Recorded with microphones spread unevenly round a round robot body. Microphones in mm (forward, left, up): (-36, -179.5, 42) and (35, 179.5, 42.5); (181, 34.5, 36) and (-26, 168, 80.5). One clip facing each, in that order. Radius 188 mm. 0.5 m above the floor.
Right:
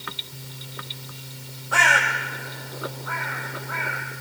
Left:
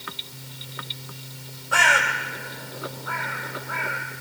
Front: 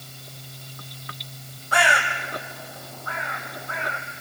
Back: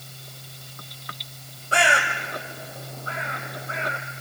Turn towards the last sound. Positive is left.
turn(degrees=85)